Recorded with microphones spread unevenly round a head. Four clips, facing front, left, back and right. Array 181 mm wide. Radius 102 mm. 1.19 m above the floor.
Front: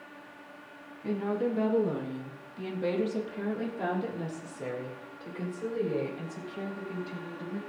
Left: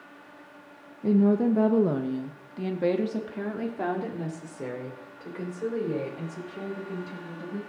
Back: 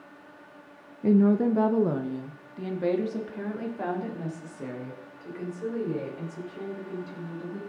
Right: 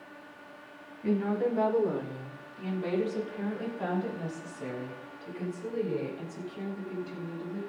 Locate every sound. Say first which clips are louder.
1.0 s a woman speaking: left 6 dB, back 9 dB; 150° left, 1.3 m; by 7.6 s 70° left, 8.5 m